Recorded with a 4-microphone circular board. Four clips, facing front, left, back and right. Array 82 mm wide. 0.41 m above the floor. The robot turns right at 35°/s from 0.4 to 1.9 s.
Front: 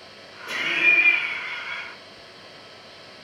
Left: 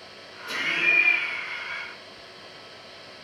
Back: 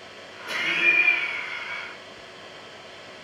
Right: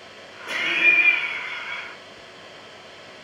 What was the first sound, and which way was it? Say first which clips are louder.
Laughter: right 4 dB, front 1 dB; 85° right.